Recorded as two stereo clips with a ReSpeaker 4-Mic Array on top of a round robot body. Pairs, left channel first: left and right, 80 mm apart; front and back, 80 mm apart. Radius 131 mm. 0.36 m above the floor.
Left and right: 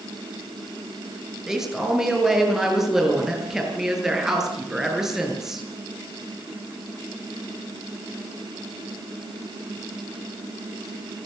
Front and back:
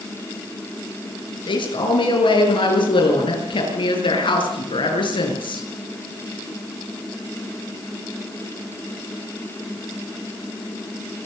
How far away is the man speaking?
About 7.5 m.